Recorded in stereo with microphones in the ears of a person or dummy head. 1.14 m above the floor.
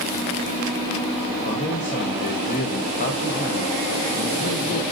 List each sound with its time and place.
1.4 s a man speaking: 35° left (ahead or behind), 0.8 m